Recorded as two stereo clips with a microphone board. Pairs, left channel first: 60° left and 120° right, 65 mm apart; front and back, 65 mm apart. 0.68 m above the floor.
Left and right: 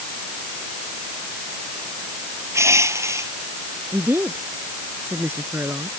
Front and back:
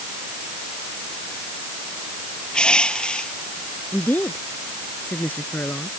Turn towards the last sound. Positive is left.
turn(degrees=-65)